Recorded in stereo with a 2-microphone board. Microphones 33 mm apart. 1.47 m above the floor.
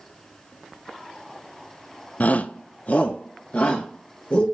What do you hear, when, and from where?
2.2 s a shout: 50° left (ahead or behind), 0.5 m; by 4.5 s 45° left (ahead or behind), 2 m